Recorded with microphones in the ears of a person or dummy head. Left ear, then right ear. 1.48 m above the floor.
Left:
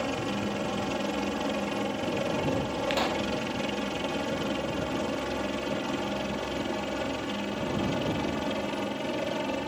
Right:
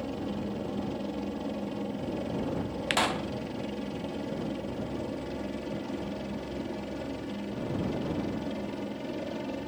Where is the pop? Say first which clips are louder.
Right 2 dB; 20° right (ahead or behind).